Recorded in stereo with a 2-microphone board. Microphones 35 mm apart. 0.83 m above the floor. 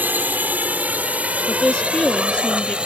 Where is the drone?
60° right (ahead or behind); by 2.9 s 35° right (ahead or behind).